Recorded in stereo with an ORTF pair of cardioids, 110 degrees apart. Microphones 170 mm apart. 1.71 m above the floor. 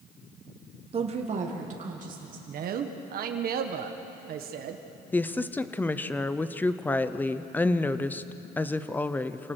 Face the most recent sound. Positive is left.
turn(degrees=10)